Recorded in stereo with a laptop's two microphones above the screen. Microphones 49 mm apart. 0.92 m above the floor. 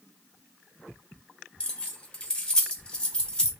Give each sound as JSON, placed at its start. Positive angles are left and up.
{"t": 1.6, "sound": "keys jangling", "side_deg": 15, "distance_m": 0.6}